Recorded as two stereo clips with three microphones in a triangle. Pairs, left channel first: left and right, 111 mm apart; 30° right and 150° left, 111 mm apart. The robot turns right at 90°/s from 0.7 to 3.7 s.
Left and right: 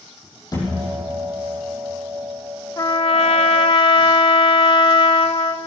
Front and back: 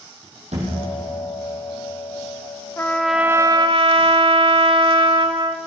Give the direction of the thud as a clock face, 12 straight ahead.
7 o'clock.